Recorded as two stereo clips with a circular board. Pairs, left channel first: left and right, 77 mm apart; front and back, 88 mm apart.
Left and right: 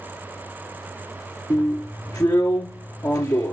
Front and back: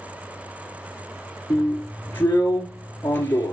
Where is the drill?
60° left, 2 m.